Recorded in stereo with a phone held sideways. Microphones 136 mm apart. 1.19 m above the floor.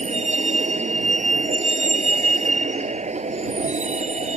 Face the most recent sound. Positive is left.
turn(degrees=-60)  # may be behind; listen again after turning